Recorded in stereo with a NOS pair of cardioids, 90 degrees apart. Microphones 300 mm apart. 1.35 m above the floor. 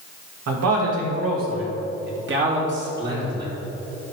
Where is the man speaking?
65° right, 2 m; by 3.5 s 35° right, 3.5 m.